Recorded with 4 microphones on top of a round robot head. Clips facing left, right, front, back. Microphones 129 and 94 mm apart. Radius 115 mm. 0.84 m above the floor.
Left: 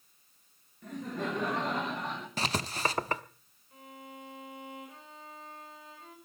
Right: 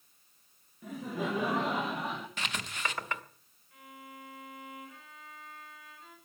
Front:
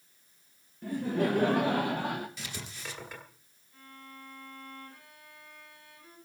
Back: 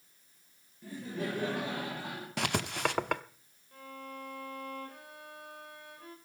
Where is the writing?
145° left, 1.0 m.